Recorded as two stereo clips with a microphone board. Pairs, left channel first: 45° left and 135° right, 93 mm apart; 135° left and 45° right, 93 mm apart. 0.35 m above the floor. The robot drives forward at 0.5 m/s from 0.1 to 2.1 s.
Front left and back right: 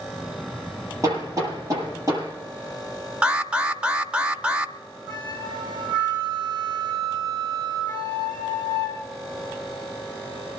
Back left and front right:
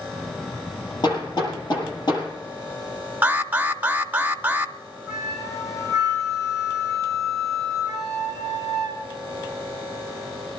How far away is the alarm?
About 0.7 m.